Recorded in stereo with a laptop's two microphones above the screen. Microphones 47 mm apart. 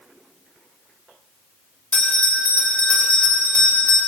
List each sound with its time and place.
1.9 s a bell: 25° left (ahead or behind), 4.5 m